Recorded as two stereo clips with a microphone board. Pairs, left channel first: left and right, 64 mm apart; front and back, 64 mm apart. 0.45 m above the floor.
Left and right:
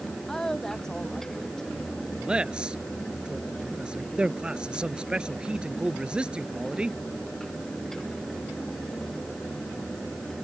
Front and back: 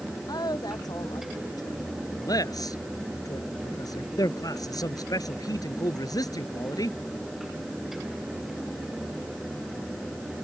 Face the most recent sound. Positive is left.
turn(degrees=-15)